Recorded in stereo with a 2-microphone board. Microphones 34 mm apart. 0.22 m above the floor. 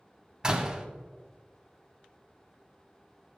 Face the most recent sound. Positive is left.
turn(degrees=-20)  # may be behind; listen again after turning